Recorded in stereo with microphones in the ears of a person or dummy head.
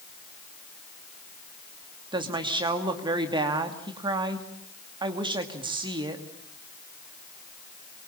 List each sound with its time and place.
2.1 s a woman speaking: 25° right (ahead or behind), 2.5 m